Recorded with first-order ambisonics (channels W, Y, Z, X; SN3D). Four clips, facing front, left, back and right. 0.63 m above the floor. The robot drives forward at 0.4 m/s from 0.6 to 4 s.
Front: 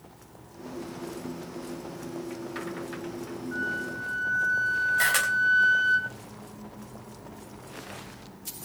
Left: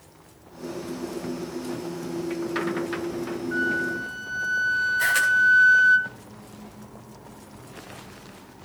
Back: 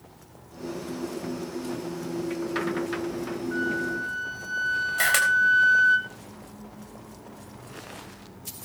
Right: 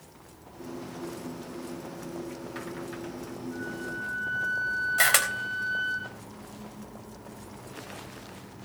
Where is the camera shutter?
110° right, 3.5 m.